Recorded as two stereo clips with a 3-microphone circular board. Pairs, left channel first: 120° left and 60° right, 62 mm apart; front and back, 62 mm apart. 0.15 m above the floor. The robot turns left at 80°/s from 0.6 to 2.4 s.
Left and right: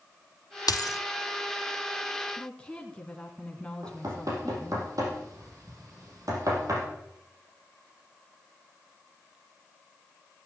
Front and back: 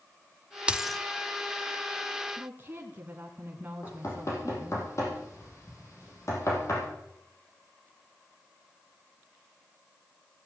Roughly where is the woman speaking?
Behind.